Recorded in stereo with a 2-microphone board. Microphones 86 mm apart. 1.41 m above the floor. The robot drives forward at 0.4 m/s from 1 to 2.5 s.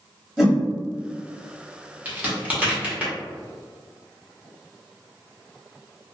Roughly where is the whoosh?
Centre.